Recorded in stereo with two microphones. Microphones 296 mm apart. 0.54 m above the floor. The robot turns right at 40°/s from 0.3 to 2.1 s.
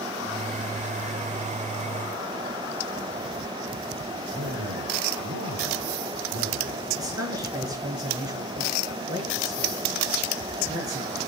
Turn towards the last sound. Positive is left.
turn(degrees=-10)  # may be behind; listen again after turning